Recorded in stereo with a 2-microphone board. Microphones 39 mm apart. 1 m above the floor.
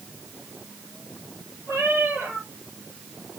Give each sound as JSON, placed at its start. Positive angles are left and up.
{"t": 1.7, "sound": "a cat meowing", "side_deg": -75, "distance_m": 9.5}